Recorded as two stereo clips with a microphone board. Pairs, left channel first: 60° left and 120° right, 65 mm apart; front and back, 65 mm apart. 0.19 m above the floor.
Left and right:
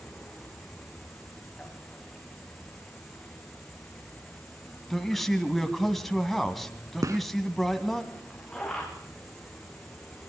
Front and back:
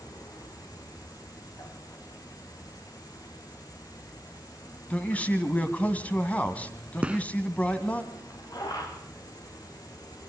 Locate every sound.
0.0 s an insect: 25° right, 7.5 m
4.9 s a man speaking: 20° right, 1.7 m
7.0 s a gunshot: 110° right, 0.6 m